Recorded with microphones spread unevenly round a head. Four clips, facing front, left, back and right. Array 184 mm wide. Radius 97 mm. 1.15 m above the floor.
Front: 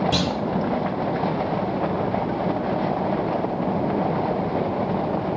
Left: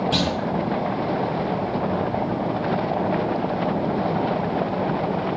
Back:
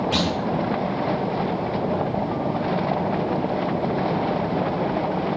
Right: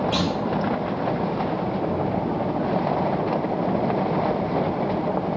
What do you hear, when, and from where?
0.1 s a clunk: 30° left, 0.7 m